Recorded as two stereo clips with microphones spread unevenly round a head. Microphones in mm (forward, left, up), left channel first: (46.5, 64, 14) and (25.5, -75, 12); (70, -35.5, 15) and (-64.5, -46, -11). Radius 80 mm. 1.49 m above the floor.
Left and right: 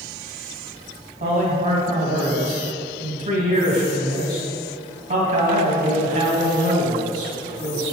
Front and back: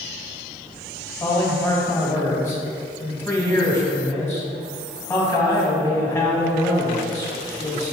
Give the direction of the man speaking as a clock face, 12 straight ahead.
2 o'clock.